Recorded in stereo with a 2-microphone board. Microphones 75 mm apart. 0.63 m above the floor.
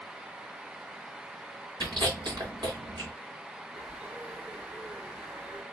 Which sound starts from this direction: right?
Chewing, at 1.8 s.